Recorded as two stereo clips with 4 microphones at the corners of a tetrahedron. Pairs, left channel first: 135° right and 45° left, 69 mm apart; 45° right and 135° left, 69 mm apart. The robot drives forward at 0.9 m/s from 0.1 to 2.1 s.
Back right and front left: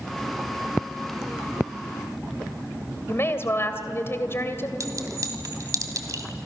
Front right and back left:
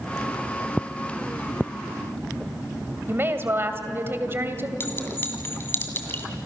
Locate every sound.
3.1 s a woman speaking: straight behind, 2.5 m
4.8 s a clink: 10° left, 2.5 m